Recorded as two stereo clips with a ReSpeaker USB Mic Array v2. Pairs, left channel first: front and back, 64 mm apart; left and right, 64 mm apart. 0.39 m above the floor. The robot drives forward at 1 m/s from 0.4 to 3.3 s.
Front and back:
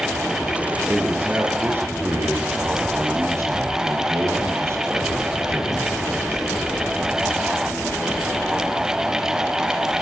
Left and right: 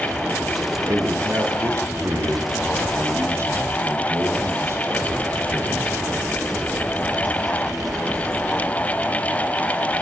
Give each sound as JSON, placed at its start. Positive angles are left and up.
{"t": 0.9, "sound": "a man speaking", "azimuth_deg": -120, "distance_m": 7.0}